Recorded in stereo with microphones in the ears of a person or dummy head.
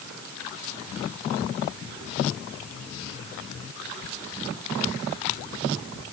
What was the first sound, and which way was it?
Only background noise.